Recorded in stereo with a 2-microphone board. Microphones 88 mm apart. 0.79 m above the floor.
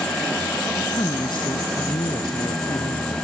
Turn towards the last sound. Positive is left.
turn(degrees=60)  # may be behind; listen again after turning